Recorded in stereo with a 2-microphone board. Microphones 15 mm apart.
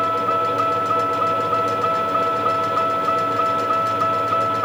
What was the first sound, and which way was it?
A vehicle, 85° right.